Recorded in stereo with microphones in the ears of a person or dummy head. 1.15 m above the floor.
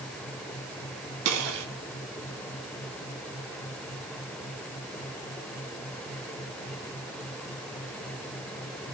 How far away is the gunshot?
About 2.5 m.